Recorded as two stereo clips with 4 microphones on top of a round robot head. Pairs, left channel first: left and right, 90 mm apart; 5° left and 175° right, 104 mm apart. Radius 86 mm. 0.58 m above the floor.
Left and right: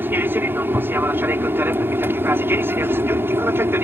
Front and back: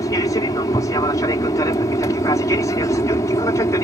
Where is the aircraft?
30° right; by 3.8 s 40° right.